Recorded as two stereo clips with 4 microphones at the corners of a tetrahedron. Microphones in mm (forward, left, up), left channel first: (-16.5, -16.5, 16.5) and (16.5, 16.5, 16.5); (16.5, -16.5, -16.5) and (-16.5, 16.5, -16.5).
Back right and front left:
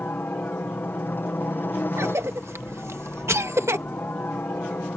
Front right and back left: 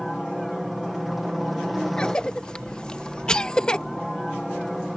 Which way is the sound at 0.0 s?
135° right.